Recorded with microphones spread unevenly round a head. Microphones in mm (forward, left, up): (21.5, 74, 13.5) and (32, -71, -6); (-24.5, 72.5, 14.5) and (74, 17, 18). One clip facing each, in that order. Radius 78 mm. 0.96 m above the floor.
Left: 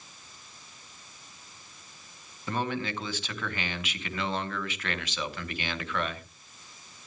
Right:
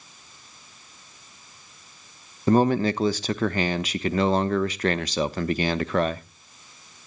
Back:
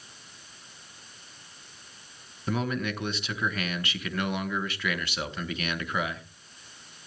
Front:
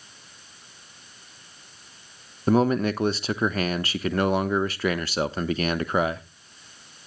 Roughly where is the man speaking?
Right.